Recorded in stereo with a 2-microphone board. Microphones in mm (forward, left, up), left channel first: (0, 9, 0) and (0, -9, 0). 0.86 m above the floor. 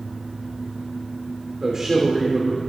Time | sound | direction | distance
1.6 | a man speaking | 35° right (ahead or behind) | 3 m